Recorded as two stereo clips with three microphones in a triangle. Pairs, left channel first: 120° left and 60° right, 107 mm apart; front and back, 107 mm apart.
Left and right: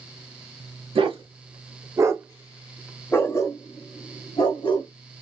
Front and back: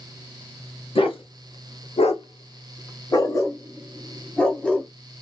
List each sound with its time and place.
0.9 s a dog barking: 30° right, 1.0 m; by 4.9 s 85° left, 1.4 m